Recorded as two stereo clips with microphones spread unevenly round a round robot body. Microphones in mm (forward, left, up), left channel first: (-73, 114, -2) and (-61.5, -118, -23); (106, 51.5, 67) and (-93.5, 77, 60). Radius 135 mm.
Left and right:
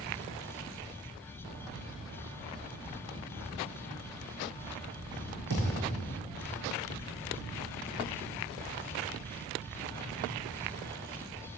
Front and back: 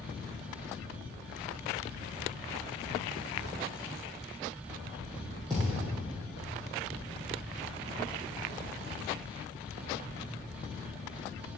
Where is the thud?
95° right, 3.5 m.